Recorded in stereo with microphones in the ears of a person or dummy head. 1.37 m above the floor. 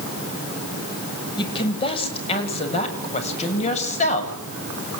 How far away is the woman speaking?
About 8 m.